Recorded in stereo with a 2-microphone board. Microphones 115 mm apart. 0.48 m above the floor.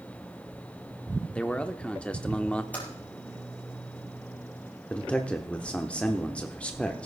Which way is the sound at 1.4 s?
10° left (ahead or behind).